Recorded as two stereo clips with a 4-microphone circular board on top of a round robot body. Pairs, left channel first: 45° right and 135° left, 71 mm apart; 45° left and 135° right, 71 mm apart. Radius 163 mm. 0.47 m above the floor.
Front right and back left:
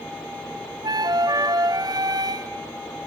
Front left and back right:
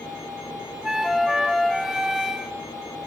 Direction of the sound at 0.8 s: 140° left.